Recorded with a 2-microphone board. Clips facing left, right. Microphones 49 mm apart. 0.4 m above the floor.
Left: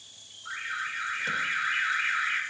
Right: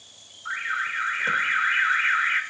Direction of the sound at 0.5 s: 35° right (ahead or behind).